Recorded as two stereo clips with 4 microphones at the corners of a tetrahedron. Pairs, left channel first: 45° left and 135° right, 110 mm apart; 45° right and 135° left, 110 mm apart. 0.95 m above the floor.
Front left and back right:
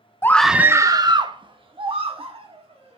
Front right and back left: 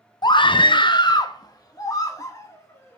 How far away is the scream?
About 0.6 m.